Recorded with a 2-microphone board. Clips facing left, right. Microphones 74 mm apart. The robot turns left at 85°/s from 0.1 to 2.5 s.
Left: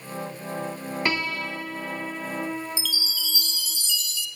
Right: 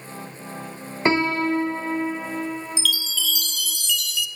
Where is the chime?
65° right (ahead or behind), 0.8 m.